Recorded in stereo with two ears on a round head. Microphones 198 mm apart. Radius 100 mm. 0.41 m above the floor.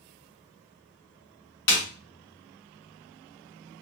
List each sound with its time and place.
1.7 s a snare drum: 55° left (ahead or behind), 1.6 m